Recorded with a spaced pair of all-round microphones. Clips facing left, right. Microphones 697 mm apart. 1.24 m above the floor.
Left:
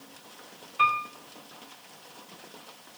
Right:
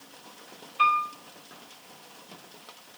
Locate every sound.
0.8 s a piano: 70° left (ahead or behind), 3.5 m